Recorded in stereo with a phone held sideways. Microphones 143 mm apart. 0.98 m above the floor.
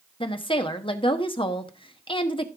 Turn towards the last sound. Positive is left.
turn(degrees=35)  # may be behind; listen again after turning